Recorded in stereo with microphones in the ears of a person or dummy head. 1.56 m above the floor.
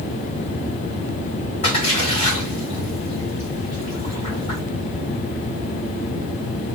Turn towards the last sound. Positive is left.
turn(degrees=35)  # may be behind; listen again after turning